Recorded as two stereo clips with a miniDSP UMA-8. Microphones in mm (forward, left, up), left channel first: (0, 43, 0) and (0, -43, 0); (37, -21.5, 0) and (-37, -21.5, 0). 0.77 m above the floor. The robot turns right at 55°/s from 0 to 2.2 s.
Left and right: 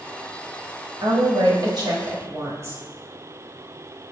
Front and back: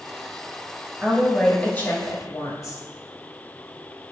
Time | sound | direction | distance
1.0 | a woman speaking | 105° right | 1.6 m